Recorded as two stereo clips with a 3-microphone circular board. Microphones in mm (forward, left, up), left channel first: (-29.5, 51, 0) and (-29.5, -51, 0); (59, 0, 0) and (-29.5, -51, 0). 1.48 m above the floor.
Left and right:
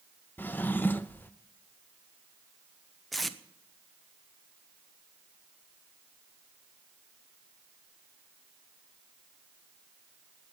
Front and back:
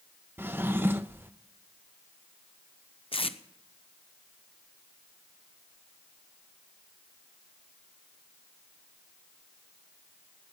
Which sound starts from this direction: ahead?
Tape being pulled, at 3.1 s.